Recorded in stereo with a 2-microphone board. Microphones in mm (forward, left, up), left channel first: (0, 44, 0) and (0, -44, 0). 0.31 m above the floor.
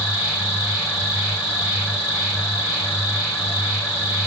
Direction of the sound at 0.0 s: 10° right (ahead or behind).